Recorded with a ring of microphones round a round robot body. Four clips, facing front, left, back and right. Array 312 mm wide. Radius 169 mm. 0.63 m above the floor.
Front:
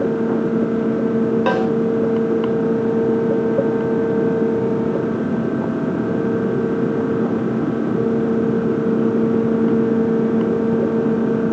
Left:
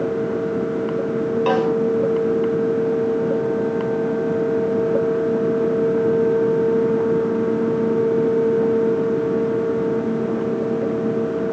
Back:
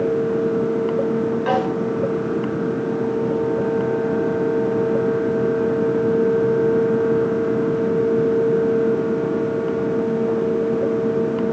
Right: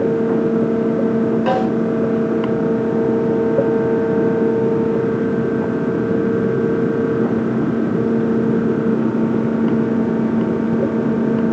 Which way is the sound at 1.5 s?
5° left.